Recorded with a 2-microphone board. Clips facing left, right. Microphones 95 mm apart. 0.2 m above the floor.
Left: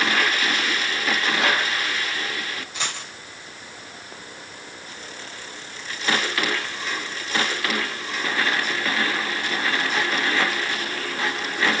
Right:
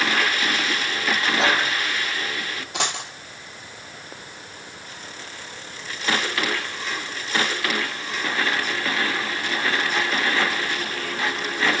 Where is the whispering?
25° right (ahead or behind), 1.3 m.